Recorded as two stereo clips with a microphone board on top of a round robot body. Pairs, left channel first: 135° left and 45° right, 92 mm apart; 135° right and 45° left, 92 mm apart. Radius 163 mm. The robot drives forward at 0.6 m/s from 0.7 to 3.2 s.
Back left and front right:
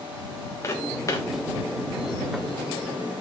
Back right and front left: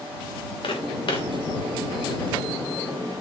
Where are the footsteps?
165° right, 4.5 m.